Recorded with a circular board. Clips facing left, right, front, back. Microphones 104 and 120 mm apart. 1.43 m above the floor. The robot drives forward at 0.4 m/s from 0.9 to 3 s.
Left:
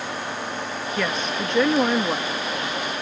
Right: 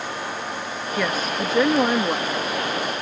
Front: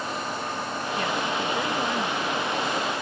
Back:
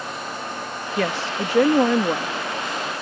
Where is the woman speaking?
175° right.